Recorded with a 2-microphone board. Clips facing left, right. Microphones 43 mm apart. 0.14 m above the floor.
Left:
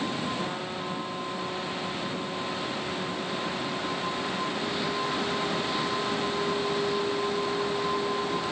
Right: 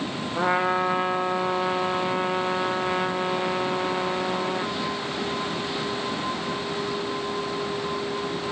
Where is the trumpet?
70° right (ahead or behind).